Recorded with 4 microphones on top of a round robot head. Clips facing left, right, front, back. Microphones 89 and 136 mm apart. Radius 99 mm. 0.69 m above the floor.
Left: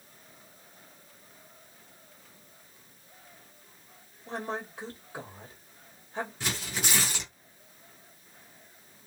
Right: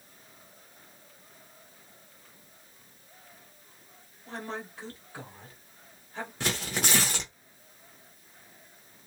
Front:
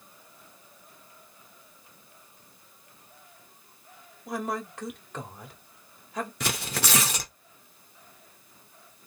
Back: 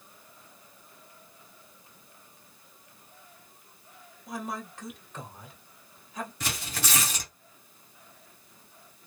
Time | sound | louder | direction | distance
4.3 | a woman speaking | left 3 dB, front 5 dB | 20° left | 1.5 m
6.4 | tearing paper | right 3 dB, front 4 dB | 40° right | 0.7 m